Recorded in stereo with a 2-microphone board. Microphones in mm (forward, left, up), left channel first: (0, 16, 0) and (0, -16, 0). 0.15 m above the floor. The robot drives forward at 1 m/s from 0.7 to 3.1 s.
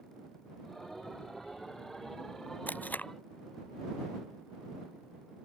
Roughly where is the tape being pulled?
Left.